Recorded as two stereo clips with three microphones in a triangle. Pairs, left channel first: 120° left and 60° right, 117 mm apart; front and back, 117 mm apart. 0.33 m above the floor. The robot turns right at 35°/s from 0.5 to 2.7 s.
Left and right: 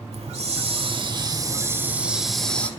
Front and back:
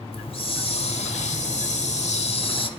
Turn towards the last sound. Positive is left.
turn(degrees=40)